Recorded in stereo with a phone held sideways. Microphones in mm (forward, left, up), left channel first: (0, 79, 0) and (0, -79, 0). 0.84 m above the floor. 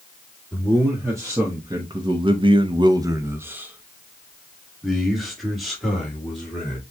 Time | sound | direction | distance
0.5 | a man speaking | 15° right (ahead or behind) | 1.6 m